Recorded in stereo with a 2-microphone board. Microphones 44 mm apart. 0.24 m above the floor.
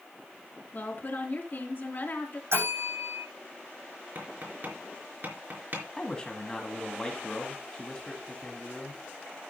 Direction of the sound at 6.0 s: 20° left (ahead or behind).